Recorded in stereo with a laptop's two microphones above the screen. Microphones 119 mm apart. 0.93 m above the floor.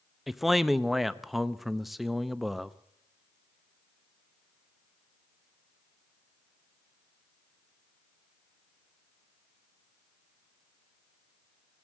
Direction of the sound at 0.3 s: Centre (ahead or behind).